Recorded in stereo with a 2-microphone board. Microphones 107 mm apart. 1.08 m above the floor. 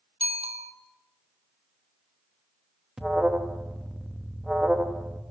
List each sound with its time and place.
0.2 s a bicycle bell: 70° right (ahead or behind), 2.5 m
3.0 s an alarm: 5° right (ahead or behind), 1.2 m